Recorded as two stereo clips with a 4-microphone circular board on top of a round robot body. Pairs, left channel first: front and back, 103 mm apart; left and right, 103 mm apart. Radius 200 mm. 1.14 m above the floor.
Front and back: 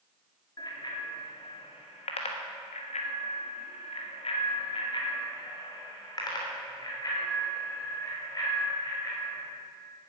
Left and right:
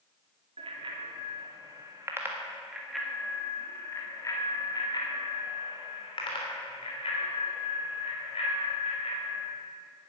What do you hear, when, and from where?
0.6 s a bicycle bell: 55° right, 2 m; by 9.4 s 65° left, 5 m